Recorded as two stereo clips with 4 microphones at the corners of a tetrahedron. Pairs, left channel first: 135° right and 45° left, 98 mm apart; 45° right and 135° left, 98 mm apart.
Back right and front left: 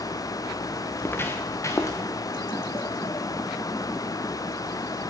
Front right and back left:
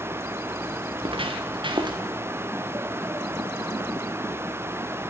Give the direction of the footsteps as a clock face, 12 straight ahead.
7 o'clock.